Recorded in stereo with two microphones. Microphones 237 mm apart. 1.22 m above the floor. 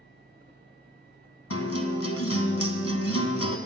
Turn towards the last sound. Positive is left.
turn(degrees=80)